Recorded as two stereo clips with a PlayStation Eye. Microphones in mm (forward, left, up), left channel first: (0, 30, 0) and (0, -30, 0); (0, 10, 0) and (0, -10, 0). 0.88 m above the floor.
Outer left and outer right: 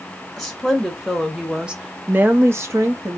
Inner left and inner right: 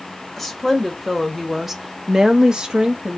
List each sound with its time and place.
0.4 s a woman speaking: 5° left (ahead or behind), 1.3 m; by 3.2 s 50° right (ahead or behind), 0.7 m